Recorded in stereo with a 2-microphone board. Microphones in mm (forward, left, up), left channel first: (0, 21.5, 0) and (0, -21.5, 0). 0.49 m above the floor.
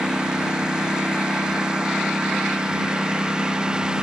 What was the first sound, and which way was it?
A lawn mower, 20° right (ahead or behind).